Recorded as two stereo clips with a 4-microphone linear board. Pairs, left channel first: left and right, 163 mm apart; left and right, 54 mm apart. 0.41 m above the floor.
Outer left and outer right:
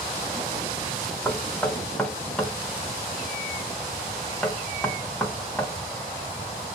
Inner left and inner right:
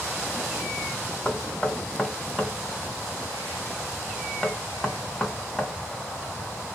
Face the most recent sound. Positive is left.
turn(degrees=10)  # may be behind; listen again after turning